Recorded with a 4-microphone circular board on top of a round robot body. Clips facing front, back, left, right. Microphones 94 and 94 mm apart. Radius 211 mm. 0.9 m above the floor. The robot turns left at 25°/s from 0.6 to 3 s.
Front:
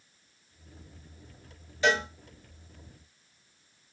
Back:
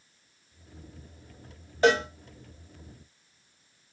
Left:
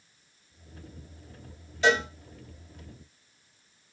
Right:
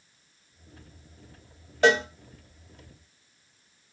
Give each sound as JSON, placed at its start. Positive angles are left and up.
{"t": 1.8, "sound": "a cowbell", "azimuth_deg": -130, "distance_m": 0.5}